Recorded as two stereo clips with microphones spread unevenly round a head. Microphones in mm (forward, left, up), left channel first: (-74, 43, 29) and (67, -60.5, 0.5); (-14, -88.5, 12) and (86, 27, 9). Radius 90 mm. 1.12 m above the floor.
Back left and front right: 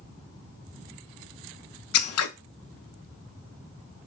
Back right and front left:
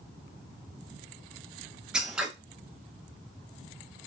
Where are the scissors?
135° left, 0.5 m.